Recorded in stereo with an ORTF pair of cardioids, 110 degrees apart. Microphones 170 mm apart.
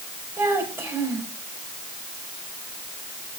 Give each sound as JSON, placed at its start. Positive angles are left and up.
{"t": 0.4, "sound": "a child speaking", "azimuth_deg": -15, "distance_m": 6.0}